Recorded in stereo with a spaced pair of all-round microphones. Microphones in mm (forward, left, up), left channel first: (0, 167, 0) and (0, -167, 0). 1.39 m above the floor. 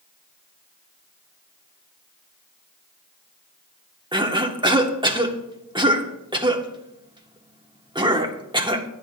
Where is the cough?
15° right (ahead or behind), 1.4 m.